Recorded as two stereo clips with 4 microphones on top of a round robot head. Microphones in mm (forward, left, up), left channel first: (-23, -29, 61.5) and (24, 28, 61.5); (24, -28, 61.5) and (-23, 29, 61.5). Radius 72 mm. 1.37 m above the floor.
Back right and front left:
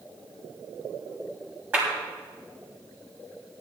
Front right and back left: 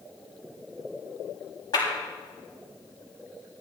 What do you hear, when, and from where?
1.7 s a clap: 20° right, 7 m